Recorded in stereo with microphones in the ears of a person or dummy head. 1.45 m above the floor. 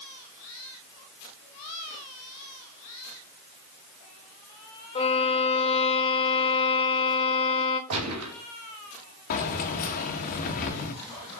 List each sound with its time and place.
5.0 s a violin: 30° left (ahead or behind), 1.4 m
7.9 s a gunshot: 80° right, 2.5 m
9.3 s keys jangling: 50° left (ahead or behind), 1.2 m